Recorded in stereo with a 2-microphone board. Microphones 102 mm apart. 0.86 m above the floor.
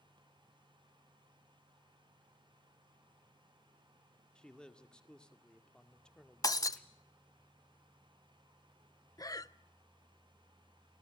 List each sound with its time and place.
4.3 s a man speaking: 10° left (ahead or behind), 2 m
6.4 s breaking glass: 40° left (ahead or behind), 0.8 m
9.2 s breathing: 40° left (ahead or behind), 0.6 m